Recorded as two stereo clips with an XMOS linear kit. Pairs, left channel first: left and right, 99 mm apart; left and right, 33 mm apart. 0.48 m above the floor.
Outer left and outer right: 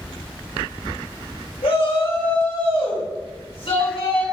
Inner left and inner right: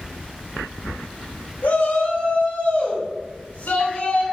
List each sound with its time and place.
1.6 s a shout: 60° left (ahead or behind), 3.5 m